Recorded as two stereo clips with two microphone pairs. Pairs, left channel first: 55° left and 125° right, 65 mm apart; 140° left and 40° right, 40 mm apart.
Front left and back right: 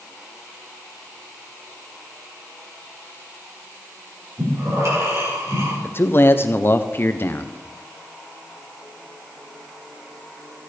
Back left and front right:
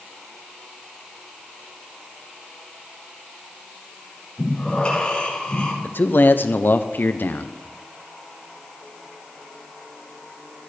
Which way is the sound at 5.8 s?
105° left.